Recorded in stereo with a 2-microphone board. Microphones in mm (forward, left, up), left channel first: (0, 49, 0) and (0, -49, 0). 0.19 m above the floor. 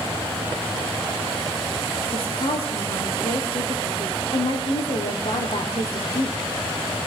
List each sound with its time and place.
2.1 s a woman speaking: 65° left (ahead or behind), 6 m